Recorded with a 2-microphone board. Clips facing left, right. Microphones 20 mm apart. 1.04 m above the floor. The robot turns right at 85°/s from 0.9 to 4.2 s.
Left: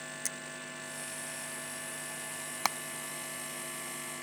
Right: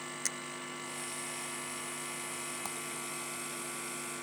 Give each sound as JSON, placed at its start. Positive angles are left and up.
{"t": 0.2, "sound": "a finger snap", "side_deg": -20}
{"t": 2.6, "sound": "hammering", "side_deg": 65}